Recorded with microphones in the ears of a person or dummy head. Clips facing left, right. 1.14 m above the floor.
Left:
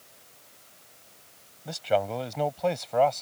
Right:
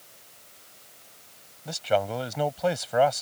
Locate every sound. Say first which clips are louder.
1.6 s a man speaking: right 1 dB; 5° left (ahead or behind); by 3.2 s 5° right (ahead or behind)